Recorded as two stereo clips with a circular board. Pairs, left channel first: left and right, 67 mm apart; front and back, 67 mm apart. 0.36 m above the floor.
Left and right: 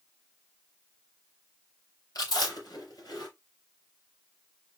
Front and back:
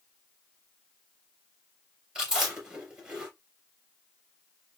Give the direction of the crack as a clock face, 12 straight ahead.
No crack in this recording.